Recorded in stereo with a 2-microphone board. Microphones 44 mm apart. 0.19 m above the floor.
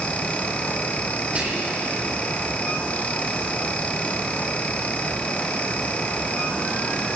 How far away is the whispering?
About 5.5 m.